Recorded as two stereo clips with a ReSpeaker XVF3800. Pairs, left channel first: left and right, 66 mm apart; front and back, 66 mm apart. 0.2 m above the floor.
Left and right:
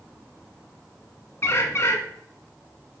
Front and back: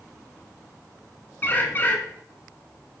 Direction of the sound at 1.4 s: 50° left.